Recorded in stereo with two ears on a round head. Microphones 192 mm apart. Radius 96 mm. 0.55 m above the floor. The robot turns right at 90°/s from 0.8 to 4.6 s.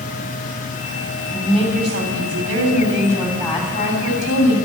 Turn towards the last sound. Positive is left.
turn(degrees=95)